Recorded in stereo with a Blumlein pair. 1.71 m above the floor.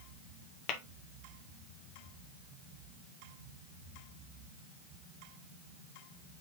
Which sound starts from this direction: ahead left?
Tapping, at 0.7 s.